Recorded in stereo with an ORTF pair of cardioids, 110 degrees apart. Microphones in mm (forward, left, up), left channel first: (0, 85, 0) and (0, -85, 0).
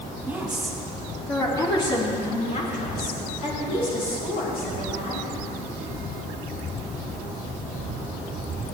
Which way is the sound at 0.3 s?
10° right.